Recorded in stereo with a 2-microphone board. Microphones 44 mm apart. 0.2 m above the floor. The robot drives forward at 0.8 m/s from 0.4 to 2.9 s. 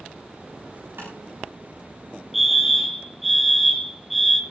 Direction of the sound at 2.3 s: 5° right (ahead or behind).